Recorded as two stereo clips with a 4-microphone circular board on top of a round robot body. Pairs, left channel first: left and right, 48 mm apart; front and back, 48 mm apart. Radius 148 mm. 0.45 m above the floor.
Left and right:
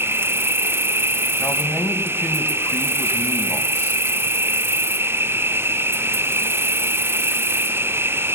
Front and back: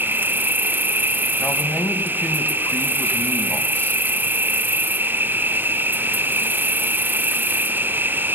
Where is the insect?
130° right, 0.9 m.